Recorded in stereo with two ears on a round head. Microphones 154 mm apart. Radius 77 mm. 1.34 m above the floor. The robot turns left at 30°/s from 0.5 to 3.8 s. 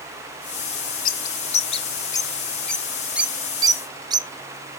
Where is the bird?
50° left (ahead or behind), 0.6 m; by 4.3 s 25° right (ahead or behind), 0.6 m.